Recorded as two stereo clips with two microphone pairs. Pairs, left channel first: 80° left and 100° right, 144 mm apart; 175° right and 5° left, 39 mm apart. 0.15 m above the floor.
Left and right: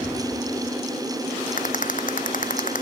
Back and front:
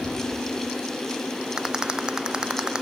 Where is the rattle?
70° left.